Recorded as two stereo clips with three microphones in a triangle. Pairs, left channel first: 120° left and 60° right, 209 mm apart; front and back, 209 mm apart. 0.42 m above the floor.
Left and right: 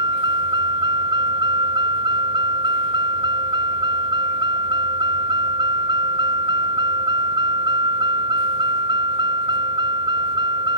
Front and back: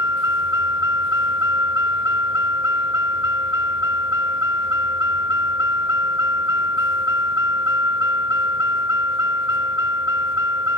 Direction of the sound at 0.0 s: 10° left.